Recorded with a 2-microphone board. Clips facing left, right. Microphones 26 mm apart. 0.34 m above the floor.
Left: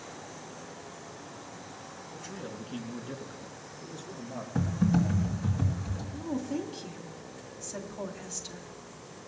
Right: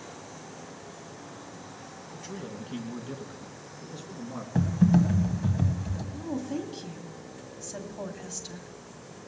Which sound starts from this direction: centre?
A woman speaking, at 6.1 s.